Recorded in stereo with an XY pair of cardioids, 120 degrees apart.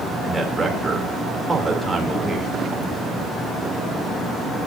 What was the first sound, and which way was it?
A man speaking, 10° right.